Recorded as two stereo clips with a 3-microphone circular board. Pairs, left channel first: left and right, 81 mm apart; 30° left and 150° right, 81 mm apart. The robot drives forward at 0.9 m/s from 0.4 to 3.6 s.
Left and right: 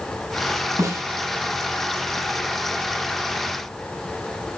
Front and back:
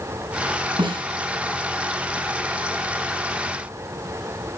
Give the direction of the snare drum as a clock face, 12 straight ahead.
5 o'clock.